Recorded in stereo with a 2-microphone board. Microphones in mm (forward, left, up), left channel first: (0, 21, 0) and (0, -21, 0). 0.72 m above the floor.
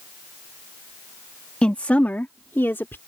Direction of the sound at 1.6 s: 30° left (ahead or behind).